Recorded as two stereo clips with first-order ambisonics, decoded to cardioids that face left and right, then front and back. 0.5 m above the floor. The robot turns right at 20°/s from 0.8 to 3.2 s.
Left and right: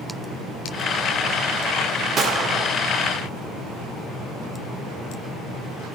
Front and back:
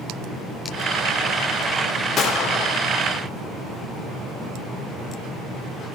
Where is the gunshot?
40° right, 1.6 m; by 2.7 s 30° right, 1.6 m.